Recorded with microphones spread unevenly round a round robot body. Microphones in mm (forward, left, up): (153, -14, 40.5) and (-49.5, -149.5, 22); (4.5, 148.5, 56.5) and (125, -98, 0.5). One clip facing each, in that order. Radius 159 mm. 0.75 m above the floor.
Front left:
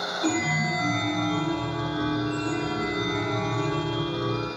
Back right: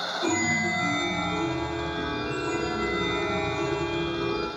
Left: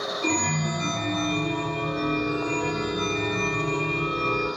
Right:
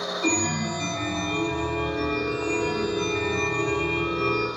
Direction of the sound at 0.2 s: 115° right.